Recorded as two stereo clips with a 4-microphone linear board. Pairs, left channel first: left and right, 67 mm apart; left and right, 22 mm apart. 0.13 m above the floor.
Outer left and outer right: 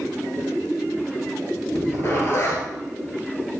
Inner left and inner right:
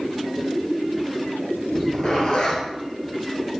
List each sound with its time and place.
1.7 s a zipper: 35° left (ahead or behind), 2 m